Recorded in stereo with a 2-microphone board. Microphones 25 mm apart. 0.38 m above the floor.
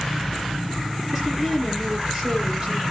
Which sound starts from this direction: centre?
A woman speaking, at 1.1 s.